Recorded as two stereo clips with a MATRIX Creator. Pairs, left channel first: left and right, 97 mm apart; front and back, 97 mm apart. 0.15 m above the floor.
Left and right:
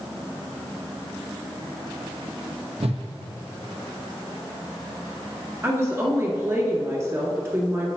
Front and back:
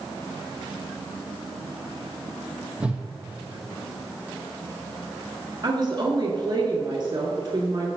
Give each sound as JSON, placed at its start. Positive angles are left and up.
{"t": 2.8, "sound": "a whoosh", "azimuth_deg": -100, "distance_m": 1.1}
{"t": 5.6, "sound": "a woman speaking", "azimuth_deg": -150, "distance_m": 1.7}